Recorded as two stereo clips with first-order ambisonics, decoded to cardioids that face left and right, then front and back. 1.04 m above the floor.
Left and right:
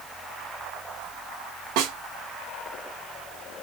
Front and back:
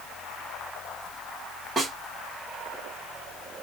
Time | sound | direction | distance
1.8 | a snare drum | 100° right | 2.5 m